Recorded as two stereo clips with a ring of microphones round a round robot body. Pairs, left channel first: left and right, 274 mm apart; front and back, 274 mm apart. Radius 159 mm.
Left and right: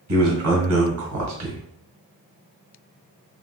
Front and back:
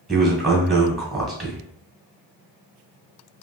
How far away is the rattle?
No rattle in this recording.